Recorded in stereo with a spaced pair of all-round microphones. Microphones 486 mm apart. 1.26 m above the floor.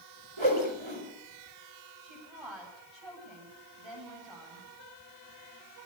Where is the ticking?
No ticking in this recording.